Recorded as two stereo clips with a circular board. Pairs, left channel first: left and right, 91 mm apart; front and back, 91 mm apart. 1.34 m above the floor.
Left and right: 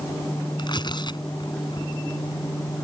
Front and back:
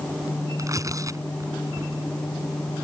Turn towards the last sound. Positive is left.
turn(degrees=125)